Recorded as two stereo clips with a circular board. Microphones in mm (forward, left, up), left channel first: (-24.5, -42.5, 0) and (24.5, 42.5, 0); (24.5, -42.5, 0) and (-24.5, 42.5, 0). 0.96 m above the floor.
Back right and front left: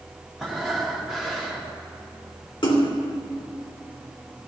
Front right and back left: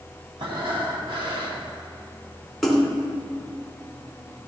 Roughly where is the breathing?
Behind left.